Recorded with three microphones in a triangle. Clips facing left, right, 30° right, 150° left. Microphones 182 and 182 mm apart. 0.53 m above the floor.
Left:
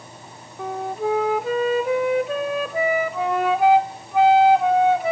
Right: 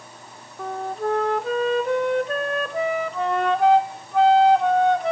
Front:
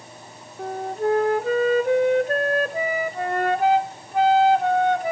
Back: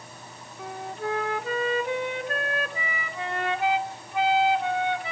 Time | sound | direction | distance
0.6 | a flute | 5° left | 0.7 m